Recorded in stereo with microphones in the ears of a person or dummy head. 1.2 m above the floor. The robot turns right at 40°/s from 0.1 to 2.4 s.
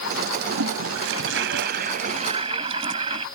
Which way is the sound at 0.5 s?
100° right.